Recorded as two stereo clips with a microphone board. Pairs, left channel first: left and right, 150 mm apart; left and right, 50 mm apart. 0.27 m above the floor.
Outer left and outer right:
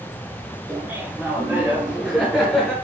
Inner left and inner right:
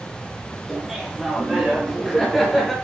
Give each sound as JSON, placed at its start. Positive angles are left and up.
{"t": 0.7, "sound": "laughter", "side_deg": -10, "distance_m": 4.5}